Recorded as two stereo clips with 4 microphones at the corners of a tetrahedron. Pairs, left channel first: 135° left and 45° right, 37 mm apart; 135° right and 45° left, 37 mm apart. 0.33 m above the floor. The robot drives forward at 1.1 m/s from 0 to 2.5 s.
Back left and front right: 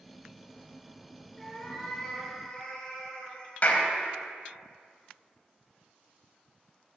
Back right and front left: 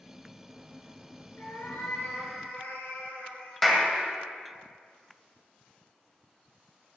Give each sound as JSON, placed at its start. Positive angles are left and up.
{"t": 1.4, "sound": "a cat meowing", "azimuth_deg": -150, "distance_m": 3.0}
{"t": 3.6, "sound": "a clap", "azimuth_deg": 140, "distance_m": 1.7}